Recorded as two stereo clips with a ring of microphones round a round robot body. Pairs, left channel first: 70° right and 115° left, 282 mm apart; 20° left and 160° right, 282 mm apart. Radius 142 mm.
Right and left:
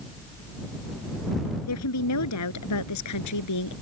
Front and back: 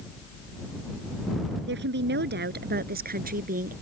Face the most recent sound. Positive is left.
turn(degrees=-95)